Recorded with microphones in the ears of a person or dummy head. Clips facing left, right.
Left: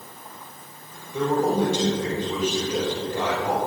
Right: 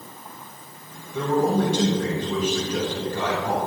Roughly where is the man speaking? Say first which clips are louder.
Even; centre.